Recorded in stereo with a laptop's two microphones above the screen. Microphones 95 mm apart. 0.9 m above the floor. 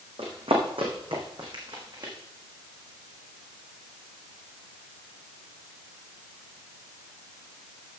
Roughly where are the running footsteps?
Right.